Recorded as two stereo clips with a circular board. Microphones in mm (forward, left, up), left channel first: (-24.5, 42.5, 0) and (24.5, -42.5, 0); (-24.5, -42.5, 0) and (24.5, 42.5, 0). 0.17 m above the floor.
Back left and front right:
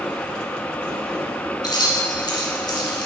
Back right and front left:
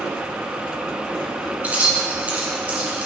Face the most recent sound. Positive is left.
turn(degrees=130)